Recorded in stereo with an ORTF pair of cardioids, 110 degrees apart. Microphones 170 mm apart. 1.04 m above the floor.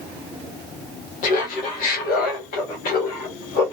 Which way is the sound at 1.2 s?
55° left.